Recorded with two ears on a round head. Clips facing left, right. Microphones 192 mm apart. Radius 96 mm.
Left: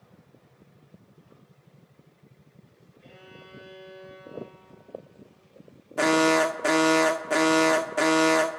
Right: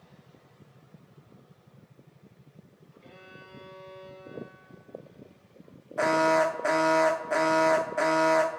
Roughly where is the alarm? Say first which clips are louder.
Left 3 dB; left.